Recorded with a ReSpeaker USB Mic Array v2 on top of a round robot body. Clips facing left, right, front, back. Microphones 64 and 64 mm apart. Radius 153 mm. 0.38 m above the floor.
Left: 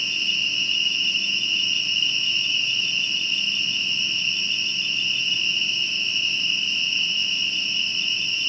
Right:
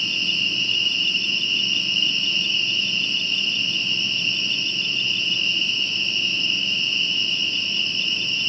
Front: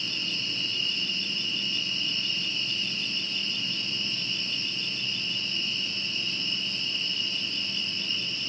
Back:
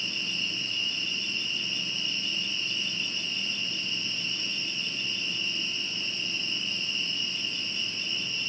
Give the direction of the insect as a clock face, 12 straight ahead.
11 o'clock.